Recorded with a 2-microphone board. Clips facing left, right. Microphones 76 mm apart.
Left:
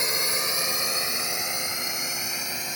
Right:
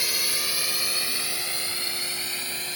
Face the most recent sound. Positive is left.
turn(degrees=15)  # may be behind; listen again after turning